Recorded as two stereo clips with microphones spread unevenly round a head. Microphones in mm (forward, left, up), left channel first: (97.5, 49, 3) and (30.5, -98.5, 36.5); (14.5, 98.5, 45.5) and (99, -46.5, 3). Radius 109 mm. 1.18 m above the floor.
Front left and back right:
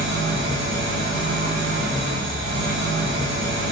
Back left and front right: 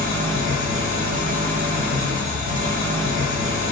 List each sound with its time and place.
0.0 s an engine running: 115° right, 3.5 m